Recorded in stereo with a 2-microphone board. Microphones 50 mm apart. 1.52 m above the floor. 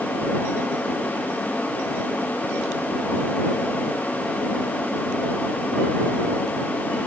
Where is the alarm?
No alarm in this recording.